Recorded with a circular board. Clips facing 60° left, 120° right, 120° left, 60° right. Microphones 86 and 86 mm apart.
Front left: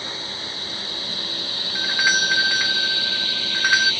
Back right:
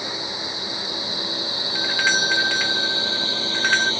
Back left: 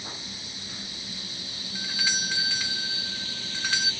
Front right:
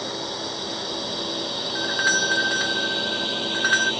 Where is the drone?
45° right; by 4.0 s 60° right.